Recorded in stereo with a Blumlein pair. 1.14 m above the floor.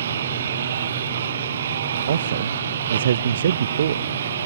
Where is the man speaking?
65° right.